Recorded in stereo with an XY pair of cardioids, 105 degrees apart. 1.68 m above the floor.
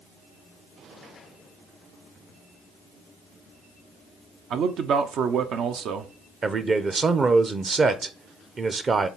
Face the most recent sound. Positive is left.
turn(degrees=-35)